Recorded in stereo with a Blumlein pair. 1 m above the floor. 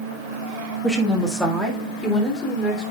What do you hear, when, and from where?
0.8 s a woman speaking: straight ahead, 1.4 m; by 2.9 s 20° left, 3.5 m